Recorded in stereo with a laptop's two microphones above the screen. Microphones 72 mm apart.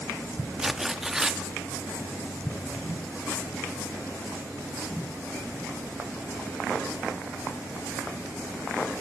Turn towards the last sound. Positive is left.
turn(degrees=-5)  # may be behind; listen again after turning